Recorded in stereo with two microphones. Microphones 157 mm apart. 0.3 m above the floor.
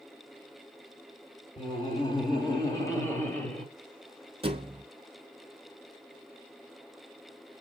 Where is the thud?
35° right (ahead or behind), 0.6 m.